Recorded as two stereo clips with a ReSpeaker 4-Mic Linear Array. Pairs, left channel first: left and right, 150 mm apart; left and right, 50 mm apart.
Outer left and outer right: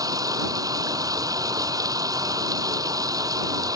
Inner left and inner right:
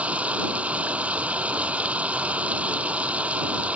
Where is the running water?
25° right (ahead or behind).